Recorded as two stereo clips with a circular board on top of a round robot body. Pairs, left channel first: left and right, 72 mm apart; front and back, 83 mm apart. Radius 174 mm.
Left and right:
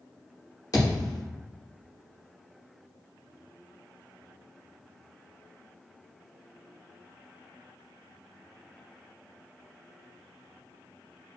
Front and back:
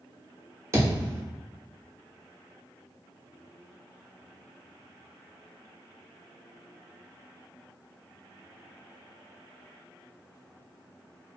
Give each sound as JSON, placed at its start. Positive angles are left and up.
{"t": 0.7, "sound": "a thud", "azimuth_deg": 125, "distance_m": 1.0}